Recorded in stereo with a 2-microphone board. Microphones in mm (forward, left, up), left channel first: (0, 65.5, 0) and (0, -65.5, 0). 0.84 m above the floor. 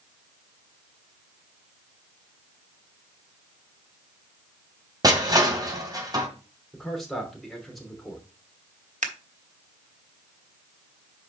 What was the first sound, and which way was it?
Crushing, 30° right (ahead or behind).